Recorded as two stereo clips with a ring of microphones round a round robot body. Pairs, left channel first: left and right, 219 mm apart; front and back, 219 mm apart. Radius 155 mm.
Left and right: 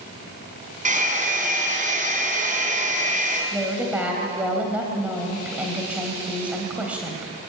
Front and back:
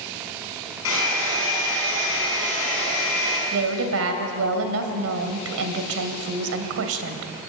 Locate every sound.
0.8 s a hair dryer: 35° right, 5 m
3.5 s a woman speaking: 175° right, 3 m